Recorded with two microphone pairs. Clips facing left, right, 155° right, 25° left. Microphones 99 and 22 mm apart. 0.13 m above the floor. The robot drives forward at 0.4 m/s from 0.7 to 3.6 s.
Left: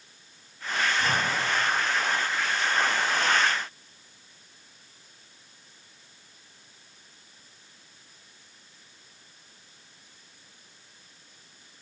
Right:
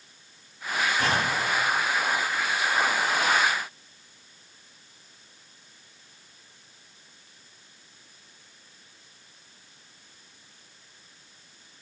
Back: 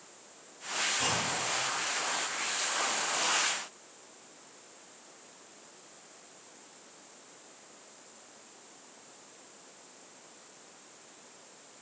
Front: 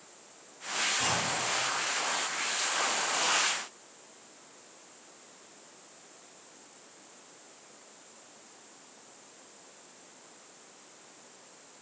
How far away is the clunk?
About 6 m.